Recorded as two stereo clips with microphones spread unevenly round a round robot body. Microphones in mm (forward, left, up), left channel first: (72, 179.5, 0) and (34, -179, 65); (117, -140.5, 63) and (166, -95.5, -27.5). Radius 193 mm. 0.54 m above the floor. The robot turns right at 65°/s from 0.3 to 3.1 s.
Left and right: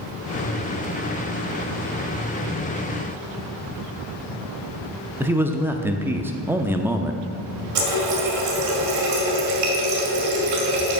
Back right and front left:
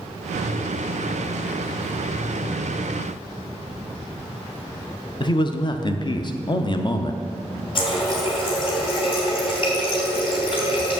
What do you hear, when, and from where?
5.2 s a man speaking: 10° left, 0.6 m
7.8 s a running tap: 145° right, 2 m